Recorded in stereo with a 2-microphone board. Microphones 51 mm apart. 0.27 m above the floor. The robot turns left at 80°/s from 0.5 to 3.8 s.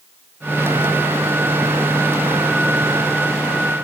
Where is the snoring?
No snoring in this recording.